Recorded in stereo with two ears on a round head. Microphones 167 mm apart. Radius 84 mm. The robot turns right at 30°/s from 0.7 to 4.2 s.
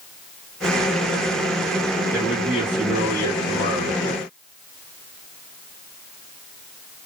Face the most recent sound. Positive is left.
turn(degrees=40)